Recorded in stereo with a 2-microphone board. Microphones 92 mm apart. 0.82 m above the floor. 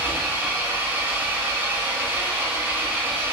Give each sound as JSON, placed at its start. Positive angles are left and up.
{"t": 0.0, "sound": "an engine running", "side_deg": -20, "distance_m": 0.8}